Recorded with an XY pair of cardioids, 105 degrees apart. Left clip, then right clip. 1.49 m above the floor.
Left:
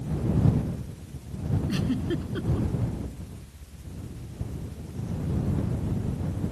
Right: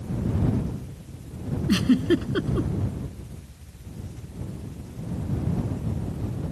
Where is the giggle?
55° right.